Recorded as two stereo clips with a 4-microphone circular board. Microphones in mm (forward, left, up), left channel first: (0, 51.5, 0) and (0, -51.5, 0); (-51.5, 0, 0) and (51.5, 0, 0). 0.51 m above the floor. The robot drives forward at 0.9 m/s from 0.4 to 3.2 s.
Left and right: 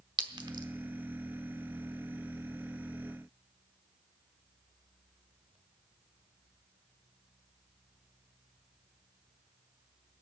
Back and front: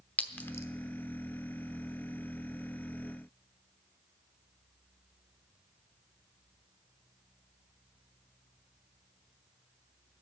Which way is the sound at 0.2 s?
110° right.